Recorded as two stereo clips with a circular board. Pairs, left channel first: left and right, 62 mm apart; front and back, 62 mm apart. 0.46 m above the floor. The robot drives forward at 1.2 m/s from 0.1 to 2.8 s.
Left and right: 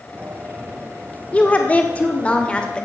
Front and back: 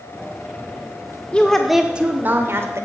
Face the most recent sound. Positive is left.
turn(degrees=160)